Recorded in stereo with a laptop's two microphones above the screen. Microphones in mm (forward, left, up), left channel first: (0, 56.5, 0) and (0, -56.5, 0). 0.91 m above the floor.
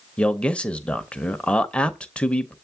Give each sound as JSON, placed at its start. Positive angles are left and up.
{"t": 0.2, "sound": "a man speaking", "side_deg": 10, "distance_m": 0.7}